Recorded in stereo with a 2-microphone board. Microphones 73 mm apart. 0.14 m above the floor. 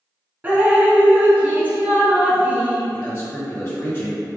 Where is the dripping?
25° right (ahead or behind), 0.9 m.